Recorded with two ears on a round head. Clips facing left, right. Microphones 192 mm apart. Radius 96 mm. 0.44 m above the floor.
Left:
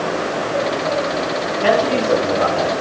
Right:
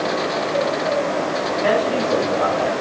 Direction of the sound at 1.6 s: 65° left (ahead or behind).